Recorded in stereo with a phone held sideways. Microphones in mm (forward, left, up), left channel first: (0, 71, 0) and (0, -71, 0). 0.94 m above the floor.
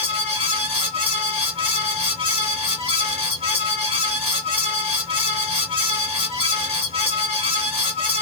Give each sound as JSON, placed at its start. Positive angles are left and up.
{"t": 0.0, "sound": "a fan", "side_deg": -45, "distance_m": 1.3}